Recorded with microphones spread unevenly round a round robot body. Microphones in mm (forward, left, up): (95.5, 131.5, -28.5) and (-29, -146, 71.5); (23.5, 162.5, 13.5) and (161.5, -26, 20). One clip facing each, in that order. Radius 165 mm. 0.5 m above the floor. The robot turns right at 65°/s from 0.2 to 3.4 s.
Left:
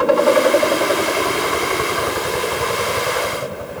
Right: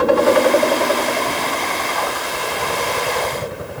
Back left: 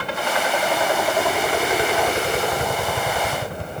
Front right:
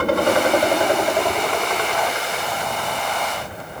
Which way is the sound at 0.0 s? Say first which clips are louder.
Even, front right 8 dB; 45° right.